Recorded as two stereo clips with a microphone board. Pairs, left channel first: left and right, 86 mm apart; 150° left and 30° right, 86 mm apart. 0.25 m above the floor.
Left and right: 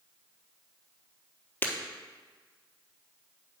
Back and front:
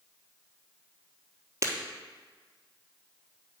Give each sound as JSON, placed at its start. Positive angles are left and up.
{"t": 1.6, "sound": "breaking glass", "azimuth_deg": 25, "distance_m": 1.4}